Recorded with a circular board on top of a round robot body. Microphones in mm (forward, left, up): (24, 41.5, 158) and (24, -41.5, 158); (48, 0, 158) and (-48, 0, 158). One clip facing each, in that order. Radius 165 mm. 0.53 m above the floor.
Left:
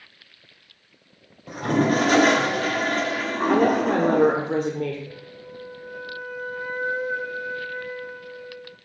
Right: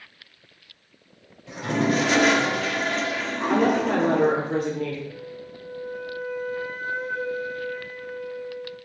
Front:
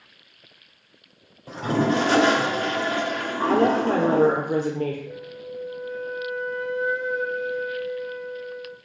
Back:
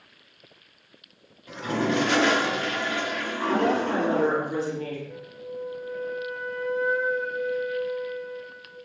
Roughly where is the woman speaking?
Ahead left.